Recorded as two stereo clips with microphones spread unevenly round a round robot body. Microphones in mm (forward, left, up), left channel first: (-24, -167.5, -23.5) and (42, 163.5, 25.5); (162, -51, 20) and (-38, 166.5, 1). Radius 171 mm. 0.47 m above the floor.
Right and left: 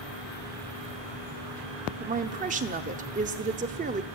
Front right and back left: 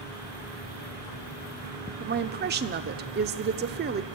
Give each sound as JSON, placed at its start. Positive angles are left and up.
{"t": 2.0, "sound": "a woman speaking", "azimuth_deg": 145, "distance_m": 0.8}